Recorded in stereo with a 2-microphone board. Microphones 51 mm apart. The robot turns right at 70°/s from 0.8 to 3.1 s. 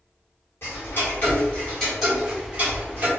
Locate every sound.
0.6 s ticking: 50° left (ahead or behind), 2.0 m; by 3.1 s 50° right (ahead or behind), 2.0 m